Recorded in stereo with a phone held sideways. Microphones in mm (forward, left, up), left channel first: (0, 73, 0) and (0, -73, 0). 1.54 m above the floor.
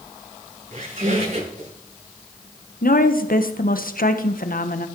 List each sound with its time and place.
0.7 s a squeak: 60° right (ahead or behind), 9 m
2.8 s a woman speaking: 75° left (ahead or behind), 1.3 m